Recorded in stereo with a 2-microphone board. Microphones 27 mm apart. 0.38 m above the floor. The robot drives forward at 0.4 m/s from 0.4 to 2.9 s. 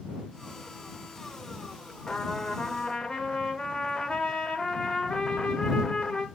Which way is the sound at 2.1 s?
30° left (ahead or behind).